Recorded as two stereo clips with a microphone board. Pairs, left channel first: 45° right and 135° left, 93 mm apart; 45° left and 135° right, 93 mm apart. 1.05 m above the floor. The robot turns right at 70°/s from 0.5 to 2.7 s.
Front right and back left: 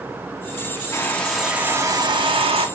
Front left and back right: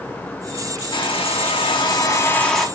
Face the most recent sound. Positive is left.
turn(degrees=140)